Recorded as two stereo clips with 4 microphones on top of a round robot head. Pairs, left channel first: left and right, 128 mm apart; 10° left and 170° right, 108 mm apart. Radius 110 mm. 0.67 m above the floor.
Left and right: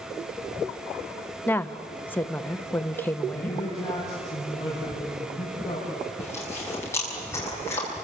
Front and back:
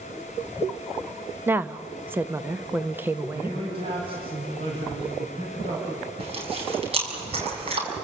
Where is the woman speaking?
145° left, 1.0 m.